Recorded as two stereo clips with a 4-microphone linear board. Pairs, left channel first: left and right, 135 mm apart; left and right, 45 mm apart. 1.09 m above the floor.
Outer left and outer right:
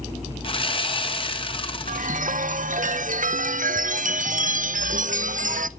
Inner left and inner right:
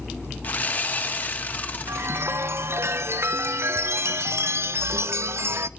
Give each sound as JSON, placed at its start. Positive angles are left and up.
{"t": 0.4, "sound": "sawing", "side_deg": 40, "distance_m": 0.8}
{"t": 1.9, "sound": "a chime", "side_deg": -75, "distance_m": 0.5}